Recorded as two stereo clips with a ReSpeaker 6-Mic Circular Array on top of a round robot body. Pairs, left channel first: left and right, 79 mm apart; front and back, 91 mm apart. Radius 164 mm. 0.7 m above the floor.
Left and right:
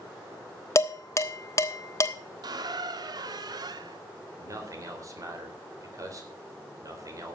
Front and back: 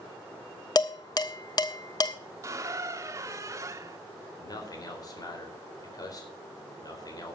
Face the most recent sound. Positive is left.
turn(degrees=-45)